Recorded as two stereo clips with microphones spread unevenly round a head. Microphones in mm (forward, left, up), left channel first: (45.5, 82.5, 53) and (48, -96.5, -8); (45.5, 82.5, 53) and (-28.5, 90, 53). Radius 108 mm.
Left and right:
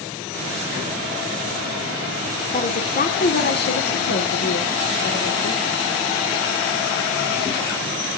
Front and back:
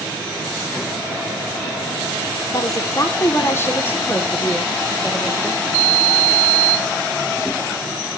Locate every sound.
2.5 s a woman speaking: 35° left, 1.8 m; by 5.6 s 75° left, 3 m